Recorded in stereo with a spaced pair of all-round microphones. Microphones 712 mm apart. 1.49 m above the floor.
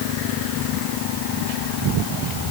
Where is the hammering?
I don't hear hammering.